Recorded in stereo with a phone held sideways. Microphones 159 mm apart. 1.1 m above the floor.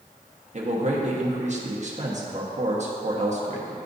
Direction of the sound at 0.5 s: 50° right (ahead or behind).